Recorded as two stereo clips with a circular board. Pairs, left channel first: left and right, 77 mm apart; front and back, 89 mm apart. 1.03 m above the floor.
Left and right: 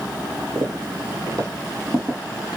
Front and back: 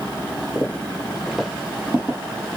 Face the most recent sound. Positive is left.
turn(degrees=-140)